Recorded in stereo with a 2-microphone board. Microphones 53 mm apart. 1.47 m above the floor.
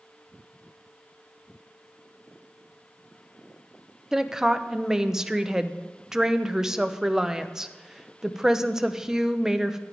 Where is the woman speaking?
10° right (ahead or behind), 0.7 m.